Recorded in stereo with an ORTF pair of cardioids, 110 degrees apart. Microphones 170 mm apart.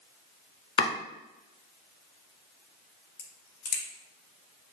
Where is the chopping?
30° left, 0.9 m.